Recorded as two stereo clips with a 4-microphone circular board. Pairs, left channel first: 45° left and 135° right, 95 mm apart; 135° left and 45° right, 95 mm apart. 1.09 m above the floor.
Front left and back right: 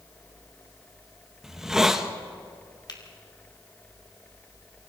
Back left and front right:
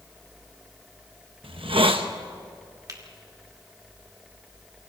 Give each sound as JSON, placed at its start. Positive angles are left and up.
{"t": 1.4, "sound": "a hiss", "azimuth_deg": -50, "distance_m": 1.2}
{"t": 2.9, "sound": "a finger snap", "azimuth_deg": 5, "distance_m": 2.0}